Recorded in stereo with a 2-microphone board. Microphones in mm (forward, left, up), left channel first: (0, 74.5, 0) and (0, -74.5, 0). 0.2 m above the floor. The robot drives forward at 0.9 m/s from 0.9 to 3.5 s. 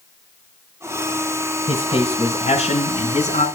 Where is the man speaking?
35° left (ahead or behind), 2 m; by 3.5 s 45° left (ahead or behind), 1.7 m.